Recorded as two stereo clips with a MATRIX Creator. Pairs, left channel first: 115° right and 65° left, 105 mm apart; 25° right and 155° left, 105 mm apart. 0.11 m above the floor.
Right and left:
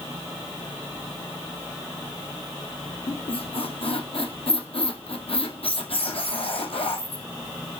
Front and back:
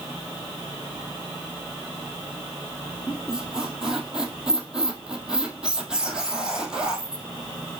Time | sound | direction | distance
3.1 | a squeak | 120° right | 1.9 m